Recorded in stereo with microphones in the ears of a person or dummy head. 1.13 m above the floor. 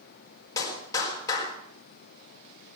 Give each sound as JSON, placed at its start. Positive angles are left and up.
{"t": 0.6, "sound": "a clap", "side_deg": 15, "distance_m": 4.5}